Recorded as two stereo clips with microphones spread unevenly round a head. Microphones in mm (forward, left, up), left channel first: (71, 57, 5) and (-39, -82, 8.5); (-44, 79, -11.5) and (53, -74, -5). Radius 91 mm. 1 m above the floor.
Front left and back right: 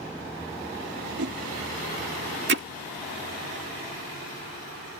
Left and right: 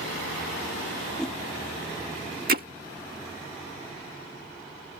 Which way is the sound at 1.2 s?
150° right.